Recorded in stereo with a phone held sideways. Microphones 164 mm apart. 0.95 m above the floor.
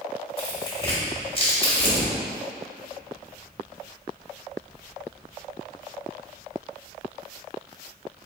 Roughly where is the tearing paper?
Left.